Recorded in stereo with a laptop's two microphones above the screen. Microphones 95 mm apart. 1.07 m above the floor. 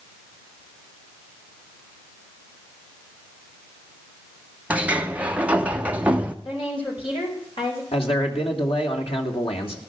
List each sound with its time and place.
4.7 s a sliding door: 15° right (ahead or behind), 0.7 m
6.5 s a woman speaking: 70° left (ahead or behind), 5 m
7.9 s a man speaking: 85° left, 2.5 m